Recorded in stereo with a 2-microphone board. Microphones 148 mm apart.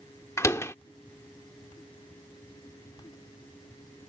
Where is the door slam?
20° left (ahead or behind).